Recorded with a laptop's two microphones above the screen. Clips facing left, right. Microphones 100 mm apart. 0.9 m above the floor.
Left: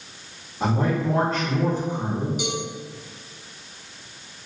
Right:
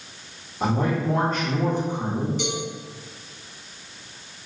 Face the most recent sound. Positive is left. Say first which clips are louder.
# even
turn(degrees=10)  # may be behind; listen again after turning